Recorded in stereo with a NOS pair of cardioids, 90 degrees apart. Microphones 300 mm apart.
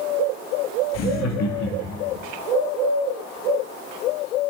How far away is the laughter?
About 2.0 m.